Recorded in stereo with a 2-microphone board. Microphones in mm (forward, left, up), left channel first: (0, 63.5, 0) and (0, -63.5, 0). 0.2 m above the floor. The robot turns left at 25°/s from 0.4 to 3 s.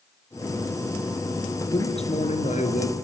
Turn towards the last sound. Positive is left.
turn(degrees=95)